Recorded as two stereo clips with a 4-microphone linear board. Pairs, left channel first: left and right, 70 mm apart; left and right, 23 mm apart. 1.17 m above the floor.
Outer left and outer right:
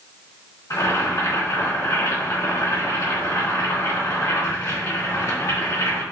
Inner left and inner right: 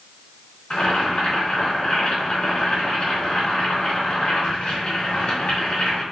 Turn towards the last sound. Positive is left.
turn(degrees=55)  # may be behind; listen again after turning